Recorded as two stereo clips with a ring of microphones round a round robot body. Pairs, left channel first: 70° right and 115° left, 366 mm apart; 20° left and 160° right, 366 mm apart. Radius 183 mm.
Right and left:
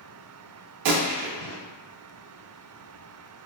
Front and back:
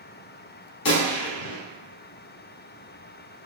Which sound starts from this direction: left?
A gunshot, at 0.8 s.